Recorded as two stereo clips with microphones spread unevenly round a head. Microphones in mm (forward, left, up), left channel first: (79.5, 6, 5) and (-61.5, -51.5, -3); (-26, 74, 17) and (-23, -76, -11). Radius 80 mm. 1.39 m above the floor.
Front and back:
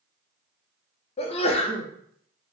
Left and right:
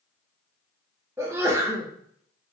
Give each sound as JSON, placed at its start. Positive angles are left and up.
{"t": 1.2, "sound": "a sneeze", "azimuth_deg": -25, "distance_m": 0.5}